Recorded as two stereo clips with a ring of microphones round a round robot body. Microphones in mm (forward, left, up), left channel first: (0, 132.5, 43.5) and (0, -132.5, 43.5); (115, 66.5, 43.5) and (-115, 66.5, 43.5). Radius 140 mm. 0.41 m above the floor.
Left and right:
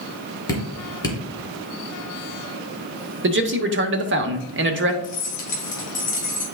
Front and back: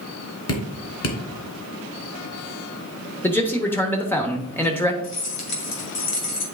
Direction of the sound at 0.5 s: 15° left.